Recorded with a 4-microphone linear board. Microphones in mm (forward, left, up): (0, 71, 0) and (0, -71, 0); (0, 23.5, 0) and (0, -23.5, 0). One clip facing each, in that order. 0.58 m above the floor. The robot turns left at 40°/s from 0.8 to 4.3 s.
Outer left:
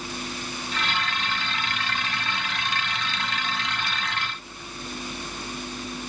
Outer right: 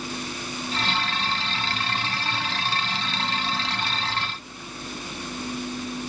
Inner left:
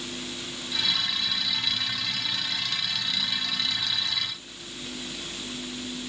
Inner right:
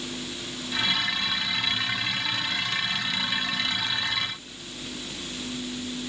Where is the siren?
I don't hear a siren.